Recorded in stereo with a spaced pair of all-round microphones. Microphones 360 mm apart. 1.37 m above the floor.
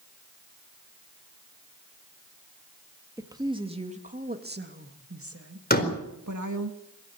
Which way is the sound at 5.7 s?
30° left (ahead or behind).